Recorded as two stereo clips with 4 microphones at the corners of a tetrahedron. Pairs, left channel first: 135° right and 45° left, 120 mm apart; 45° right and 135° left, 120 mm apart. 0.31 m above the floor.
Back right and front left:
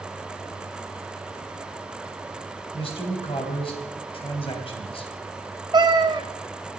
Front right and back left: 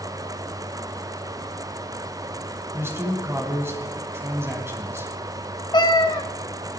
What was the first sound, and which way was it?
A man speaking, 160° right.